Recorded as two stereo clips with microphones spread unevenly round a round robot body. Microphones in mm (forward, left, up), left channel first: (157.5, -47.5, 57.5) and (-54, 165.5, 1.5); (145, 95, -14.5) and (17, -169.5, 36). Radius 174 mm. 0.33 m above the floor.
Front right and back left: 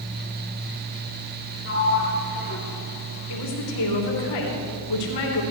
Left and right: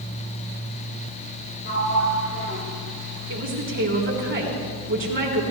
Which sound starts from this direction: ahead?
A sliding door, at 1.6 s.